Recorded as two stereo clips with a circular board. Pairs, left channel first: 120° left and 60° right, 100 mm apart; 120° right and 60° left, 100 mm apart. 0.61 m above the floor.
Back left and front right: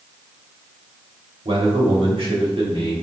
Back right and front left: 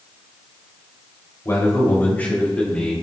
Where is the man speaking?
60° right, 2.5 m; by 2.9 s 40° right, 3.5 m.